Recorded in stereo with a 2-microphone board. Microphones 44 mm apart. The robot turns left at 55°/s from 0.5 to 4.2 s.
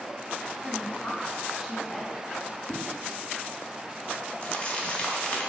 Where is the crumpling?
30° left (ahead or behind), 1.7 m.